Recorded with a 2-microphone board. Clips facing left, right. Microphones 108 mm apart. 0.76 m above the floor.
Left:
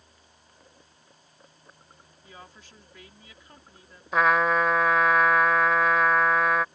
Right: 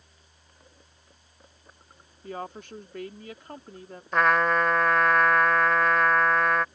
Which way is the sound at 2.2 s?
60° right (ahead or behind).